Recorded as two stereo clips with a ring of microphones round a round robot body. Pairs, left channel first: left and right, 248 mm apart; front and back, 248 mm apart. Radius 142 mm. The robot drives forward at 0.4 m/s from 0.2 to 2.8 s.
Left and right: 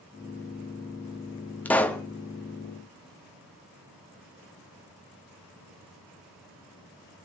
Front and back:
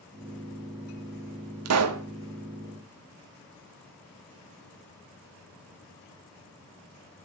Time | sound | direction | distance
1.6 | a pop | 175° left | 1.1 m